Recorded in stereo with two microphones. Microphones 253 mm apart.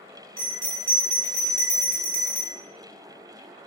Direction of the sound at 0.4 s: 35° right (ahead or behind).